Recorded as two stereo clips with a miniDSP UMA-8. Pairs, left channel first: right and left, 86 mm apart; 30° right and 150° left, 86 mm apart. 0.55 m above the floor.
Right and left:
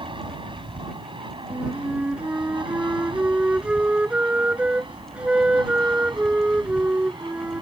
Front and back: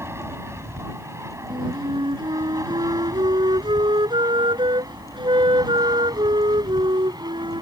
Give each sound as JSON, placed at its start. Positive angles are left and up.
{"t": 0.0, "sound": "an aircraft", "azimuth_deg": 90}
{"t": 1.5, "sound": "a flute", "azimuth_deg": 165}